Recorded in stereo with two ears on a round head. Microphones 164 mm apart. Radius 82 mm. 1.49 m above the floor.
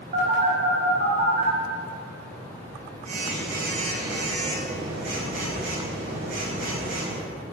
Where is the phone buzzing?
45° right (ahead or behind), 6 m.